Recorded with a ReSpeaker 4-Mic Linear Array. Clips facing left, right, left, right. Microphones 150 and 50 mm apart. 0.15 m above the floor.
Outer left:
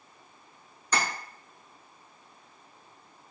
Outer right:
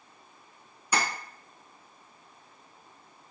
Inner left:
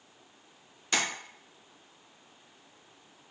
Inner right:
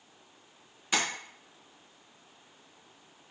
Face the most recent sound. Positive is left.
turn(degrees=-10)  # may be behind; listen again after turning